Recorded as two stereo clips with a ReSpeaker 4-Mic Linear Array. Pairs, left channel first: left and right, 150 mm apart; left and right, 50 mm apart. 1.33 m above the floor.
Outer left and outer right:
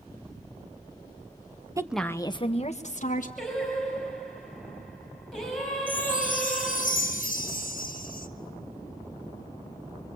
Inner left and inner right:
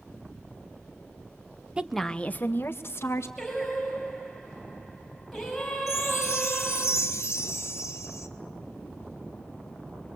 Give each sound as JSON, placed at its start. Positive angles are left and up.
{"t": 1.8, "sound": "a woman speaking", "side_deg": -20, "distance_m": 0.7}
{"t": 3.4, "sound": "singing", "side_deg": 0, "distance_m": 5.5}
{"t": 5.9, "sound": "a chime", "side_deg": 65, "distance_m": 1.0}